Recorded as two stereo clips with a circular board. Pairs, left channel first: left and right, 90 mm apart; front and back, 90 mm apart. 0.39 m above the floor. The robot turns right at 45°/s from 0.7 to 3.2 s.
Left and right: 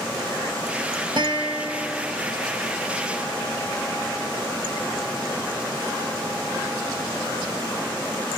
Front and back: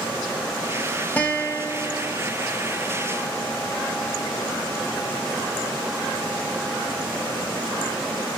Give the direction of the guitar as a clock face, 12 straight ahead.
2 o'clock.